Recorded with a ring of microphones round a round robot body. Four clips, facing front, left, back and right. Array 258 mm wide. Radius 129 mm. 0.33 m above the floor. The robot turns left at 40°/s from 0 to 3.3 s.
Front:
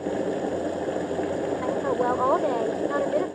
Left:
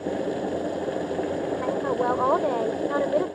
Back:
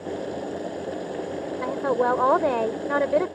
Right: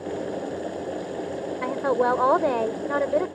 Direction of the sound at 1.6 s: 110° right.